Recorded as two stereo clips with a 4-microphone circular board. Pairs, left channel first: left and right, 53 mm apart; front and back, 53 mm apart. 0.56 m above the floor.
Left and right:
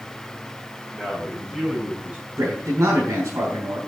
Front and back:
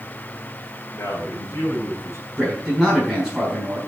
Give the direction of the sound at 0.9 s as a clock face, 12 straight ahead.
12 o'clock.